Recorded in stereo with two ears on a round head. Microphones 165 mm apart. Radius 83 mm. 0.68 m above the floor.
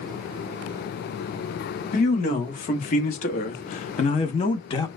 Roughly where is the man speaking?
Left.